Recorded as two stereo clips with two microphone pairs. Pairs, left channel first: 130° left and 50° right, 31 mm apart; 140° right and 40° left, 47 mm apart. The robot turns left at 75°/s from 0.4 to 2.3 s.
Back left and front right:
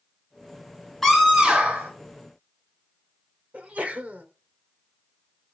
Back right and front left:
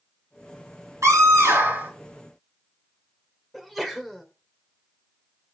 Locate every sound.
1.0 s a scream: 45° left, 4 m; by 1.9 s 20° right, 4 m
3.5 s a sneeze: 50° right, 1.5 m